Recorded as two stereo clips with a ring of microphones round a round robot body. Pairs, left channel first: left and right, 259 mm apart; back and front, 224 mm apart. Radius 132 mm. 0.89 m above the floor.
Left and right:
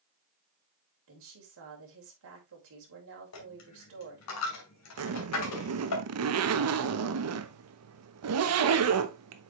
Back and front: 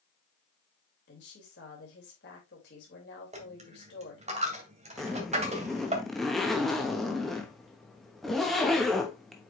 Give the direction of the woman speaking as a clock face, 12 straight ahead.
4 o'clock.